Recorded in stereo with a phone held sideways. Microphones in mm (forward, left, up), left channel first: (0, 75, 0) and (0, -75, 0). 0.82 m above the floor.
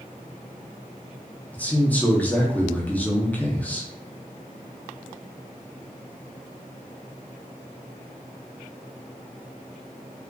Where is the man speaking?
10° left (ahead or behind), 0.6 m.